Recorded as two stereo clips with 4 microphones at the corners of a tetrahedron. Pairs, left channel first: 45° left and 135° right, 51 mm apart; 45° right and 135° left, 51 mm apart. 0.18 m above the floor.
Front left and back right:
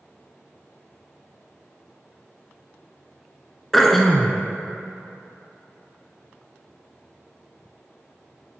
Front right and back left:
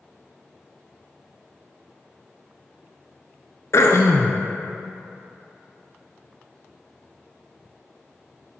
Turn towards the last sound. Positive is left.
turn(degrees=-40)